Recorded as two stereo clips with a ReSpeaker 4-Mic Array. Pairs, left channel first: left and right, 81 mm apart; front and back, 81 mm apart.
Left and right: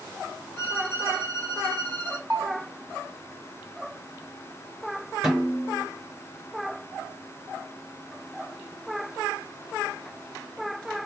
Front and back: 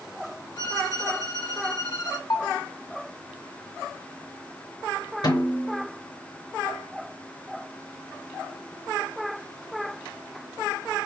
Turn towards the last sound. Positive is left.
turn(degrees=-5)